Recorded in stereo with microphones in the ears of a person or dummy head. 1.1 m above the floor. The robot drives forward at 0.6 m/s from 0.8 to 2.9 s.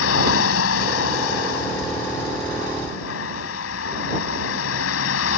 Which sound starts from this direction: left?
A vehicle, at 0.0 s.